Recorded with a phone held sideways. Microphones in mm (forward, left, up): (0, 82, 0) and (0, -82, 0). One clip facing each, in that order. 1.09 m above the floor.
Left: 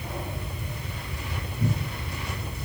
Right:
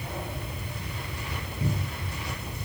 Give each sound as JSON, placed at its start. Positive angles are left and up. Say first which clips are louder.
{"t": 1.6, "sound": "a cupboard door", "louder": "left 3 dB", "side_deg": -15, "distance_m": 2.0}